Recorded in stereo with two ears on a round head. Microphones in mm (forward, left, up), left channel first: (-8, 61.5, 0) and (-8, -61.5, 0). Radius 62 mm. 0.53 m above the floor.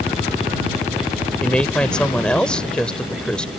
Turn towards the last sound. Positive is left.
turn(degrees=5)  # may be behind; listen again after turning